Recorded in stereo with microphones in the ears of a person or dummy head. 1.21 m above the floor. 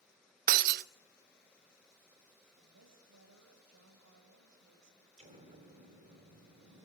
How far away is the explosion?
About 4 m.